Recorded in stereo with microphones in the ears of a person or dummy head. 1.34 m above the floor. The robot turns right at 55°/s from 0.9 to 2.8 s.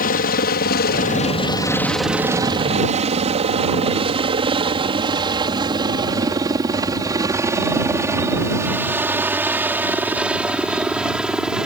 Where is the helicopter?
45° left (ahead or behind); by 11.7 s centre (ahead or behind).